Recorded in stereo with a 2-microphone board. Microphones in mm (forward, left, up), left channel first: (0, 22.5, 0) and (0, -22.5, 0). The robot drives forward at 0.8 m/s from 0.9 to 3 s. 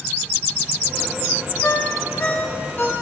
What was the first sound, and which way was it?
A ringtone, 45° left (ahead or behind).